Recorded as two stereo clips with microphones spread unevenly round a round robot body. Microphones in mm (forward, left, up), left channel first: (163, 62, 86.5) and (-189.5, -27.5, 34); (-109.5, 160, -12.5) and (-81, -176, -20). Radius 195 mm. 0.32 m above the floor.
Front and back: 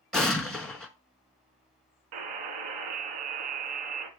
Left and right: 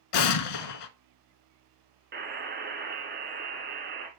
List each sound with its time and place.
0.1 s an explosion: 100° left, 0.8 m
2.1 s a buzzer: 145° right, 1.7 m